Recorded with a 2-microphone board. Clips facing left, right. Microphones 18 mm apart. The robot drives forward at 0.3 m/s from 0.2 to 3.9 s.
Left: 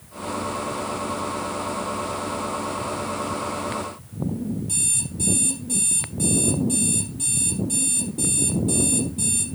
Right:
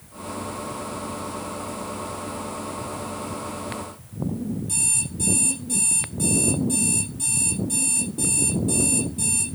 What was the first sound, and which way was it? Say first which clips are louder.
An alarm clock: even; 5° left (ahead or behind).